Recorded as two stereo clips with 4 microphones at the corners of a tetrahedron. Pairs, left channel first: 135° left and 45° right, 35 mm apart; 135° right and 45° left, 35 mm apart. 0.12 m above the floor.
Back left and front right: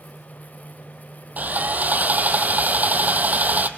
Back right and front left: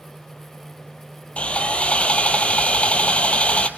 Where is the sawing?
80° right, 1.0 m.